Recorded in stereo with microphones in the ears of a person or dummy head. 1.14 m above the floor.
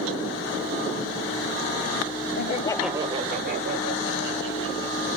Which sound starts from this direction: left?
Laughter, at 2.4 s.